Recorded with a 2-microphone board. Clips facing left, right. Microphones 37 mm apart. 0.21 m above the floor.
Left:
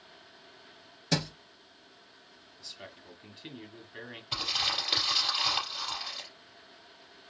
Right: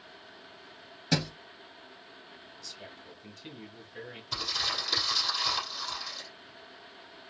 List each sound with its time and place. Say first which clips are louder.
1.1 s a thud: right 1 dB; 5° right (ahead or behind), 1.8 m
2.6 s a man speaking: left 1 dB; 30° left (ahead or behind), 1.4 m
4.3 s crumpling: left 1 dB; 35° left (ahead or behind), 3.5 m